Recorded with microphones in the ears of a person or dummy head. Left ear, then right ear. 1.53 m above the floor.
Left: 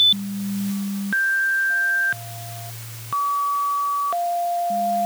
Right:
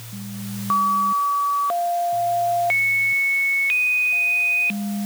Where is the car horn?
I don't hear a car horn.